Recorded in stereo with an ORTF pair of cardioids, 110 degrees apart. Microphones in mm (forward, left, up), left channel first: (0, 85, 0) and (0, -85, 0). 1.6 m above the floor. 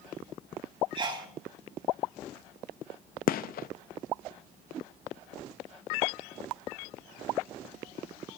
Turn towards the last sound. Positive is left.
turn(degrees=60)